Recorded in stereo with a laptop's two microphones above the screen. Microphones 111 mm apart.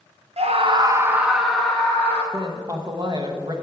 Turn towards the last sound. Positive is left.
turn(degrees=-40)  # may be behind; listen again after turning